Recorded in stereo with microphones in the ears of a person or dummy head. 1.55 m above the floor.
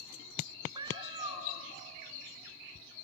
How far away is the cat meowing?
About 3 m.